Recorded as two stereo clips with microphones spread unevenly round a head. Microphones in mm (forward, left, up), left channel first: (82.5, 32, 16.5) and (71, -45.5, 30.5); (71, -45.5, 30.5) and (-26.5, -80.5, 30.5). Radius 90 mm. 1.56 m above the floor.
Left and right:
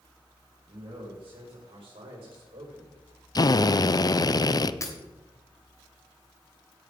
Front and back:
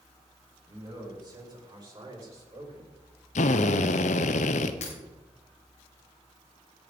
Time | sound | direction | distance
0.7 | a man speaking | 115° right | 7.5 m
3.4 | a drill | 40° left | 0.7 m
4.8 | breaking glass | 35° left | 2.5 m